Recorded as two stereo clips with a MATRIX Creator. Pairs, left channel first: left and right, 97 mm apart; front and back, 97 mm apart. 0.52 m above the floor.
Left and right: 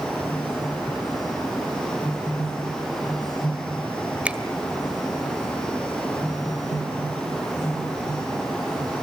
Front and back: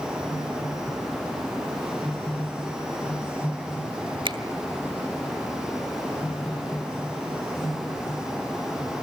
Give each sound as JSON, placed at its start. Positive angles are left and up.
{"t": 4.2, "sound": "a finger snap", "azimuth_deg": -165, "distance_m": 1.6}